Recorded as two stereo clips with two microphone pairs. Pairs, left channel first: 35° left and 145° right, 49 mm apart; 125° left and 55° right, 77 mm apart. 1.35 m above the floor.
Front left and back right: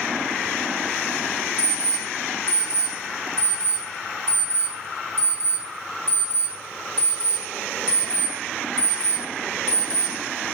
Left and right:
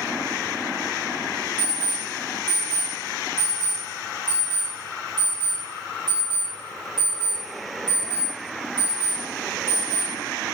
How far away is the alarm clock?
About 1.3 m.